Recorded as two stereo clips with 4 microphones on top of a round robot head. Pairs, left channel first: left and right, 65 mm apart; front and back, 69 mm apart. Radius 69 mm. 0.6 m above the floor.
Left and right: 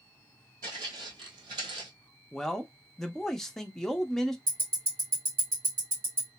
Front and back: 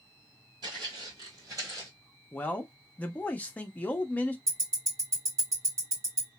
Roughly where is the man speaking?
Ahead.